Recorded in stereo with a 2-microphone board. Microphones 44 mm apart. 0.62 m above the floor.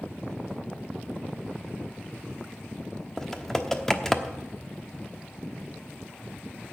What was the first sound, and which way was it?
Typing on a keyboard, 10° left (ahead or behind).